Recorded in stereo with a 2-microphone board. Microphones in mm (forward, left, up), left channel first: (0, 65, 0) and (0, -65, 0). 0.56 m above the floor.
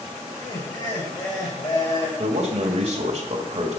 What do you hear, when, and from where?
0.3 s laughter: 30° left (ahead or behind), 3.5 m
2.2 s a man speaking: 50° right (ahead or behind), 2 m